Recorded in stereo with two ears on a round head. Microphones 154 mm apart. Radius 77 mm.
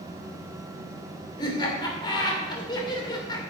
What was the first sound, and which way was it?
Laughter, 25° left (ahead or behind).